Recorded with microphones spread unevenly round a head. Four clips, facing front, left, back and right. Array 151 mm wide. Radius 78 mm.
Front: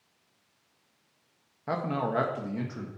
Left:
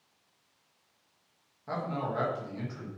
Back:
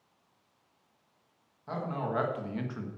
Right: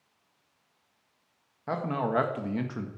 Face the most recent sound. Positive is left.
turn(degrees=-90)